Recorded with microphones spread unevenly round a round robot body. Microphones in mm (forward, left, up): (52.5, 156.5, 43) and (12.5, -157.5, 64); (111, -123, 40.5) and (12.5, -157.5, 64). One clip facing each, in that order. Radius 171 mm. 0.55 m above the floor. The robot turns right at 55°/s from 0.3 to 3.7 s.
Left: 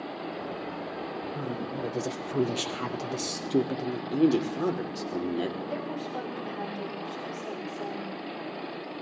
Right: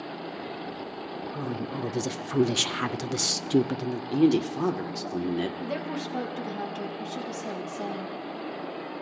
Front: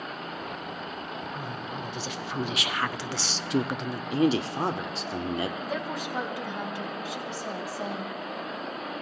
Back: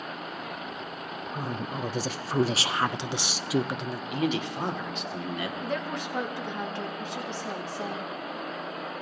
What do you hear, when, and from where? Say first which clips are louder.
1.3 s a woman speaking: right 3 dB, back 2 dB; straight behind, 0.7 m; by 4.0 s 50° right, 0.7 m
4.1 s a man speaking: right 2 dB, front 5 dB; 20° right, 1.6 m
5.6 s a woman speaking: right 2 dB, even; 60° right, 3.5 m